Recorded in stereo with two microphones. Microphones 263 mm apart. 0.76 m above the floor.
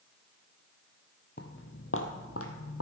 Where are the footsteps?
40° left (ahead or behind), 1.3 m; by 2.8 s 60° left (ahead or behind), 1.7 m.